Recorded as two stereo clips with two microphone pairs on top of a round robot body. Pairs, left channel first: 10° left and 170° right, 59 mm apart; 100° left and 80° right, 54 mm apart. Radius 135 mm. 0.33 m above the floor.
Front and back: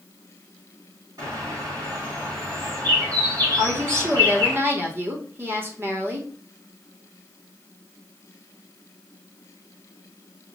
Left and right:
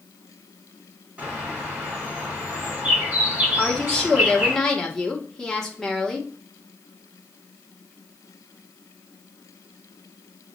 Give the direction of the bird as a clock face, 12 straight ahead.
5 o'clock.